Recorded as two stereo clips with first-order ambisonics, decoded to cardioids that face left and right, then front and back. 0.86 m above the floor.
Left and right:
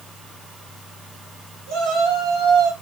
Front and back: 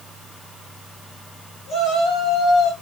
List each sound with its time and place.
1.7 s a shout: 50° right, 7 m; by 2.7 s 55° right, 6.5 m